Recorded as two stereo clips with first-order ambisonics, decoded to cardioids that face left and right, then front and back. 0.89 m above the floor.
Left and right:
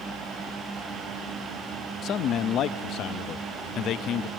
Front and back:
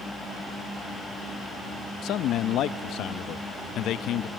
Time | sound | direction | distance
2.0 | a man speaking | 45° left | 0.6 m